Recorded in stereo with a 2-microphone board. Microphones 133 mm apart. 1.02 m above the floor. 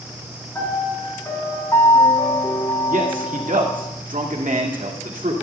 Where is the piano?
25° left (ahead or behind), 3.5 m.